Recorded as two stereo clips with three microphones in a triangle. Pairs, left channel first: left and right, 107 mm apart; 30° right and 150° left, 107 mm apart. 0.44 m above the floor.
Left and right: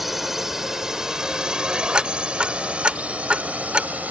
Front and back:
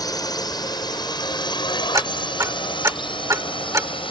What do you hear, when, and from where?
0.0 s a drone: 5° right; by 4.1 s 15° right
1.9 s ticking: 165° right